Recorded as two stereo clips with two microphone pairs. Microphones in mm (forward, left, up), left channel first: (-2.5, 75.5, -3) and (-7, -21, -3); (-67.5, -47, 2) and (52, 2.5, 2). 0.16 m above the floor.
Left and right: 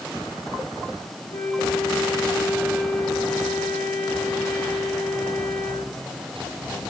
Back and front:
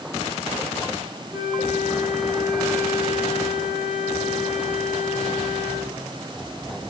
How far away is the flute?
About 6 m.